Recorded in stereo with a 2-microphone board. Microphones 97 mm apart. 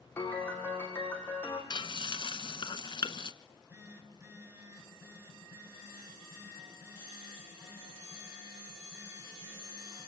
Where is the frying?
55° left (ahead or behind), 1.0 m.